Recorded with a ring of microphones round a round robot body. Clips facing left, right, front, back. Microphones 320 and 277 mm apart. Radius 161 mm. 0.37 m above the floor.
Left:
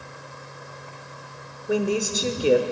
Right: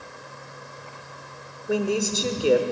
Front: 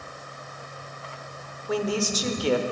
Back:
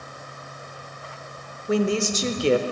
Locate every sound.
1.7 s a woman speaking: straight behind, 0.8 m